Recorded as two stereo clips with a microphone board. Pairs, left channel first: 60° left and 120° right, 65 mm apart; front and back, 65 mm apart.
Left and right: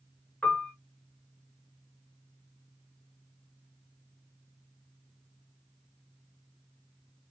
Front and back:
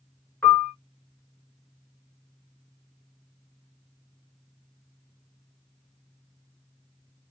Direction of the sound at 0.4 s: Straight ahead.